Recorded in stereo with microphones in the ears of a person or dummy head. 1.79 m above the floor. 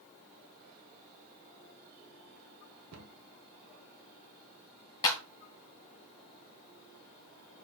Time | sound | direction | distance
2.9 | a cupboard door | 80° right | 1.4 m
5.0 | a clap | 20° left (ahead or behind) | 1.8 m